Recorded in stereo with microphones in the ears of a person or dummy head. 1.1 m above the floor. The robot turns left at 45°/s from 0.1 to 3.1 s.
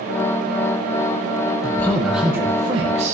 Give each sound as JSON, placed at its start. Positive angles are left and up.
{"t": 1.6, "sound": "a man speaking", "azimuth_deg": 15, "distance_m": 1.1}